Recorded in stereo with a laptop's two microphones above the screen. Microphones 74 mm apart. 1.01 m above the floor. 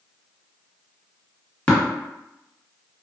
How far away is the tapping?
About 1.5 m.